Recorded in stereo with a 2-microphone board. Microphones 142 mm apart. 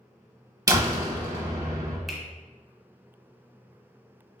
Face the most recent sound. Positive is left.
turn(degrees=0)  # may be behind; listen again after turning